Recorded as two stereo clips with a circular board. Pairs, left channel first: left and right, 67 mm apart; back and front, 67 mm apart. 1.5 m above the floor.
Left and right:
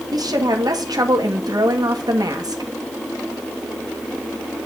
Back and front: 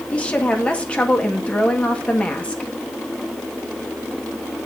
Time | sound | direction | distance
0.1 | a woman speaking | 110° right | 1.5 m